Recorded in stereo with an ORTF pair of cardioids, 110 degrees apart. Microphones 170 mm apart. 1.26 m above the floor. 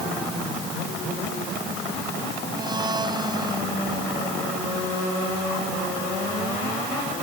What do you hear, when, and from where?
2.5 s a blender: 25° right